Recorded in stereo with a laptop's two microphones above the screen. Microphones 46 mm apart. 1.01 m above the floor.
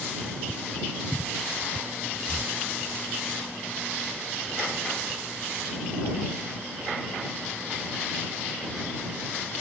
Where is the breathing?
35° left (ahead or behind).